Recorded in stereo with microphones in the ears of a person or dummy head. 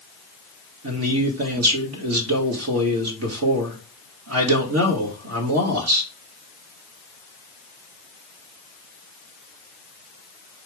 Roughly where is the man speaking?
Right.